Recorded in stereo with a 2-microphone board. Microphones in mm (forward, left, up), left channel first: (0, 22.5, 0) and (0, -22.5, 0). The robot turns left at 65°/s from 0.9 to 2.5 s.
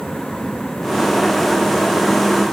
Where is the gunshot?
No gunshot in this recording.